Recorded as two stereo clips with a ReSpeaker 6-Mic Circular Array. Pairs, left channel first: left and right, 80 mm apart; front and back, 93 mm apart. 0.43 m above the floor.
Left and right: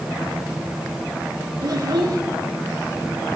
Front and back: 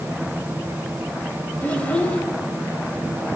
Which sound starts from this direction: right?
A child speaking, at 1.6 s.